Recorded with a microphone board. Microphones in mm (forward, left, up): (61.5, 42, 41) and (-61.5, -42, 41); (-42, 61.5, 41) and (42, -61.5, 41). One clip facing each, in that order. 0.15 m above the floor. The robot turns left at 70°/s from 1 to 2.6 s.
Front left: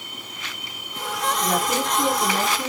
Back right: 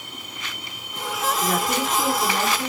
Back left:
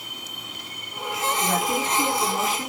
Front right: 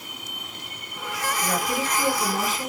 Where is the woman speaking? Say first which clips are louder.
Front left 1 dB, back left 1 dB; 75° left, 1.9 m; by 2.7 s 10° right, 1.9 m.